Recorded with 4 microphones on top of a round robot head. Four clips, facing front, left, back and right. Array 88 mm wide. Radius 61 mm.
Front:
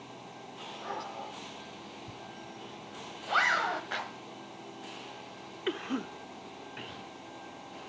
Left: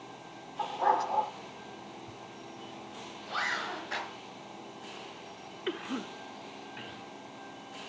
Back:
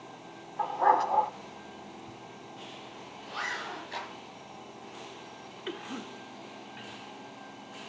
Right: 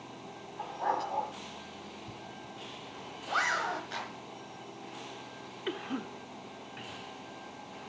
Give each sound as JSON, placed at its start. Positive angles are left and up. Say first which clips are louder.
{"t": 0.6, "sound": "a dog barking", "louder": "left 5 dB, back 16 dB", "azimuth_deg": 165, "distance_m": 0.9}
{"t": 2.1, "sound": "a zipper", "louder": "even, front 1 dB", "azimuth_deg": -20, "distance_m": 1.8}
{"t": 3.9, "sound": "a clap", "louder": "left 2 dB, front 2 dB", "azimuth_deg": 30, "distance_m": 6.0}
{"t": 5.7, "sound": "a cough", "louder": "left 1 dB, front 5 dB", "azimuth_deg": 20, "distance_m": 0.8}